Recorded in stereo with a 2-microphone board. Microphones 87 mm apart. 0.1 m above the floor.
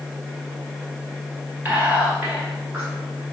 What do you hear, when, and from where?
1.6 s whispering: 20° right (ahead or behind), 1.8 m